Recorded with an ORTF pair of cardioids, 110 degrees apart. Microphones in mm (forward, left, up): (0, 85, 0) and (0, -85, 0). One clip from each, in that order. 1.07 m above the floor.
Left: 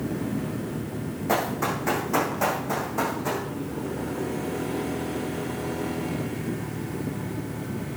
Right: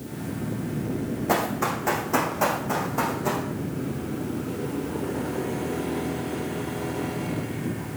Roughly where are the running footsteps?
Ahead.